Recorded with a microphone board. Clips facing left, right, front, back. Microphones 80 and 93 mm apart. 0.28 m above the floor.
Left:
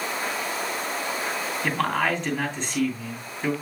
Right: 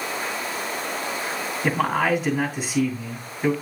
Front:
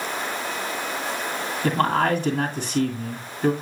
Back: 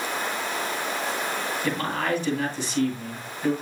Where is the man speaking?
10° right, 2 m.